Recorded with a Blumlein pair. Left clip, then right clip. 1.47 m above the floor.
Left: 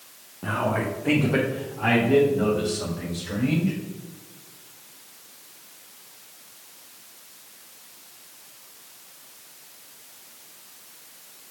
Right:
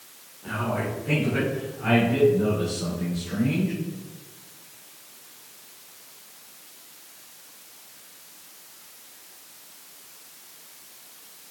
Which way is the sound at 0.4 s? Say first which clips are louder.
Left 3 dB; 50° left.